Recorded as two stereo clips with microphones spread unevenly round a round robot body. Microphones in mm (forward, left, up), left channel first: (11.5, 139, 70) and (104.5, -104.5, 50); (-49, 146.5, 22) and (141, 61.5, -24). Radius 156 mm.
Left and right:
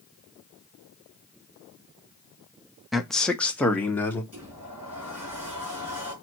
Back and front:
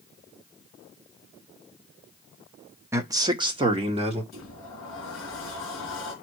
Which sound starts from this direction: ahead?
A man speaking, at 2.9 s.